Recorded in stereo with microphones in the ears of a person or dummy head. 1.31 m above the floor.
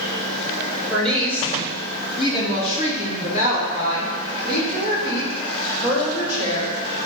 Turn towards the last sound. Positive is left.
turn(degrees=60)  # may be behind; listen again after turning